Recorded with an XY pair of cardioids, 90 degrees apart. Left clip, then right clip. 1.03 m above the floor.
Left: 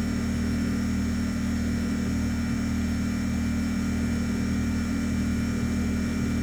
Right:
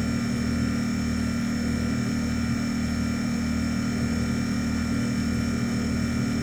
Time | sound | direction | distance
0.0 | a machine running | 45° right | 4 m